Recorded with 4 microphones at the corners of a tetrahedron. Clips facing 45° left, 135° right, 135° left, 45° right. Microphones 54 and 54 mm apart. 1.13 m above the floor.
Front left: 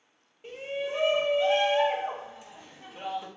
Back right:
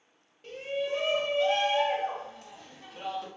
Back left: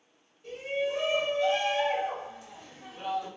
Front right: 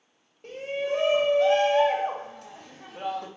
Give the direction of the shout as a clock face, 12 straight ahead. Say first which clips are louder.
Back right 1 dB, front right 2 dB; 1 o'clock.